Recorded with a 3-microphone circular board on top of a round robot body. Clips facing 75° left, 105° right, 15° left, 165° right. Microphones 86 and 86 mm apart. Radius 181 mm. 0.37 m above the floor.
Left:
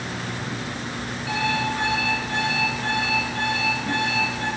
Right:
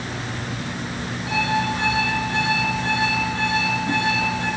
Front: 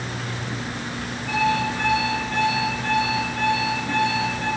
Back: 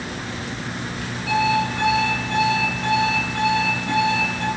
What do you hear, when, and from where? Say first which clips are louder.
1.3 s an alarm clock: right 3 dB, back 2 dB; 165° right, 5 m